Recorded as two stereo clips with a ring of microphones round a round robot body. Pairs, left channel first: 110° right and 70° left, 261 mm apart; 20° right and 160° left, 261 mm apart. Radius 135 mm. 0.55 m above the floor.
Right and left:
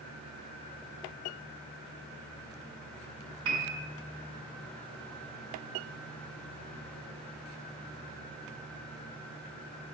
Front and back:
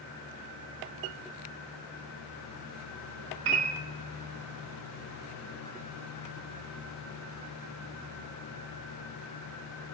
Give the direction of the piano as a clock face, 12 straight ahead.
8 o'clock.